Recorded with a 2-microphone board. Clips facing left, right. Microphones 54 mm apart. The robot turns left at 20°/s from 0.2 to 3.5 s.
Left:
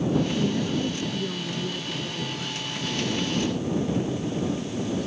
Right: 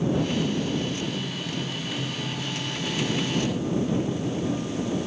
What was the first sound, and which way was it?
A woman speaking, 145° left.